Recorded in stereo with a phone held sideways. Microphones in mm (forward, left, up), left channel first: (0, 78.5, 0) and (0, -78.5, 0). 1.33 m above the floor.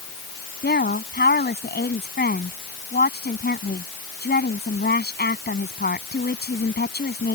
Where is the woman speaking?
85° left.